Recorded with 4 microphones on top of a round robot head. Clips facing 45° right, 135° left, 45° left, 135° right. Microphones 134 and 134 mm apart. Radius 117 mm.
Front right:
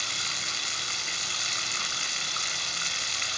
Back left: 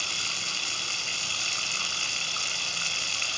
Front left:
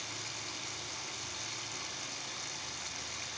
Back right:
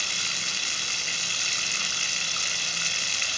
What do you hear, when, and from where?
0.0 s running water: 145° right